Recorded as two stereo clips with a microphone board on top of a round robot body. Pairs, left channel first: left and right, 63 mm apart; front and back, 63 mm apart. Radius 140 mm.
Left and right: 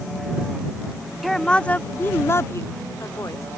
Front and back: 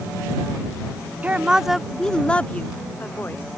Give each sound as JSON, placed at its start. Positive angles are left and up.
{"t": 1.2, "sound": "a woman speaking", "azimuth_deg": 180}